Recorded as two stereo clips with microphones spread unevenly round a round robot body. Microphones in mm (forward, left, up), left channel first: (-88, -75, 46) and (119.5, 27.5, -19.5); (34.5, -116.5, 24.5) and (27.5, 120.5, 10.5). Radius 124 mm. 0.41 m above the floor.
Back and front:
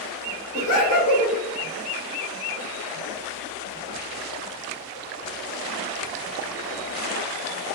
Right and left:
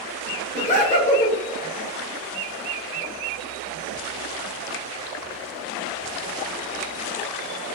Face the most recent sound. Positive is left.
turn(degrees=-140)